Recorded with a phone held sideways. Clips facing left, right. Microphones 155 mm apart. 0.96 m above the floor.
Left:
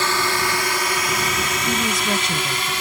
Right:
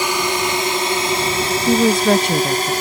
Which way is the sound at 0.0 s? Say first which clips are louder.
Right 3 dB; 15° right (ahead or behind).